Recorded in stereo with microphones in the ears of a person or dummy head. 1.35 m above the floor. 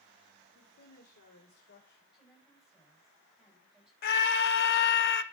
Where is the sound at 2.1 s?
5° right (ahead or behind), 8 m.